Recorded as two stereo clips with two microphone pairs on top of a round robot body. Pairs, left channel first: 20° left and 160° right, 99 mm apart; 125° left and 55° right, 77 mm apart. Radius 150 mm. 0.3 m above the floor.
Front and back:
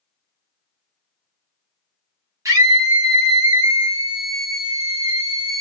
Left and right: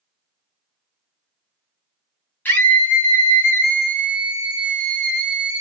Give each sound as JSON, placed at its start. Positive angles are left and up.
{"t": 2.5, "sound": "a scream", "azimuth_deg": 175, "distance_m": 1.5}